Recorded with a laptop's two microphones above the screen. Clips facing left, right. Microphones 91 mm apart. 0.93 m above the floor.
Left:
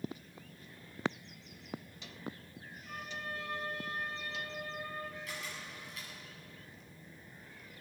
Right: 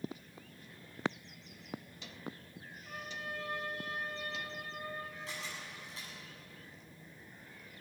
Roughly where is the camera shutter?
Right.